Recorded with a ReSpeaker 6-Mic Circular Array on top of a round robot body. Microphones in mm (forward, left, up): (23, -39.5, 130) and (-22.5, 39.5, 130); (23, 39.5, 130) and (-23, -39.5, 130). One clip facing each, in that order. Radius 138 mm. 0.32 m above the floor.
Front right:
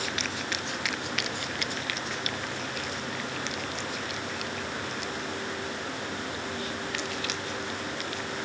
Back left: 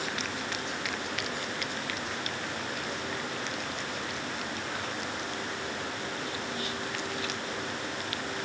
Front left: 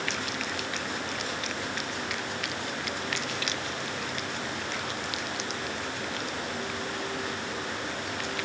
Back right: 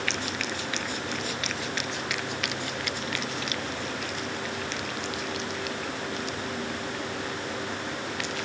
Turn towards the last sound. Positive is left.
No sound to turn to.